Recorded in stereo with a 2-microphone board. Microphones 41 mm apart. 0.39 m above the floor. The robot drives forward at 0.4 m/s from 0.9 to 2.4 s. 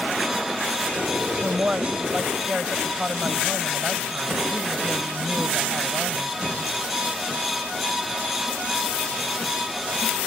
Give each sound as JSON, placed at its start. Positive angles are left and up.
{"t": 1.4, "sound": "a woman speaking", "side_deg": -40}